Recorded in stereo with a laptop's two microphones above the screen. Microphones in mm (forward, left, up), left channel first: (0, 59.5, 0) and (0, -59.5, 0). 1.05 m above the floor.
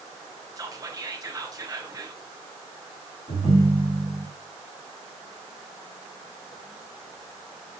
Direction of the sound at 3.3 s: 65° left (ahead or behind).